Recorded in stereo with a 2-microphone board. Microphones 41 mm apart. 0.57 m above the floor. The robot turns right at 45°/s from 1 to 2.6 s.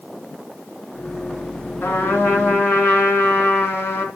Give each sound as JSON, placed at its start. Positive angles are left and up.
{"t": 1.8, "sound": "a trumpet", "azimuth_deg": 80, "distance_m": 3.5}